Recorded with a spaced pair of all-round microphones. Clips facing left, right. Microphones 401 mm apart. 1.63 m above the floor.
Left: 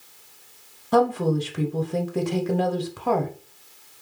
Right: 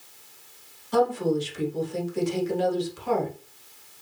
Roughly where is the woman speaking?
Left.